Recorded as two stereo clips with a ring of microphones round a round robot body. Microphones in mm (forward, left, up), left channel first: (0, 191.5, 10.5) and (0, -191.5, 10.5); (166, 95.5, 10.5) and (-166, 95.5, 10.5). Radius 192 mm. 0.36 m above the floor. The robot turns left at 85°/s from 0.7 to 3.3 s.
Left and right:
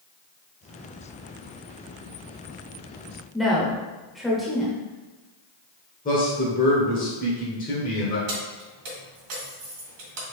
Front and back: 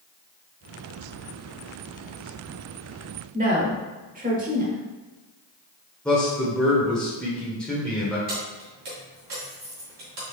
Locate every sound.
3.3 s a woman speaking: straight behind, 0.9 m
6.0 s a man speaking: 85° left, 1.0 m
8.3 s keys jangling: 125° right, 1.9 m